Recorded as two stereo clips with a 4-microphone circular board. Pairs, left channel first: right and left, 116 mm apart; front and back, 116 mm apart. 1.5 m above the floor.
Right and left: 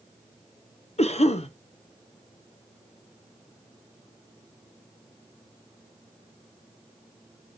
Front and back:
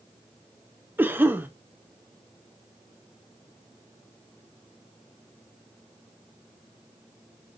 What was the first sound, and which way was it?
A cough, 105° right.